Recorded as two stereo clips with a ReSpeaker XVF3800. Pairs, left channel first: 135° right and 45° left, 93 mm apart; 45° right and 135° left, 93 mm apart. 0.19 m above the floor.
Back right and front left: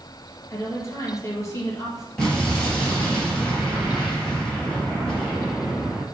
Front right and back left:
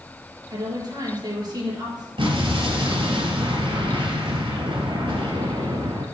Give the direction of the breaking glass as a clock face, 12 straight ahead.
No breaking glass in this recording.